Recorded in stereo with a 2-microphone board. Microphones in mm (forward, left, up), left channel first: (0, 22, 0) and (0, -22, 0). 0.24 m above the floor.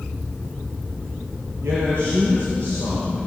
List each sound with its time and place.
1.6 s a man speaking: 75° right (ahead or behind), 6.5 m